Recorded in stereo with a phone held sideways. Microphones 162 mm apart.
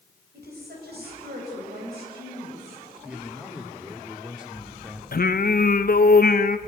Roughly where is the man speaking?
Centre.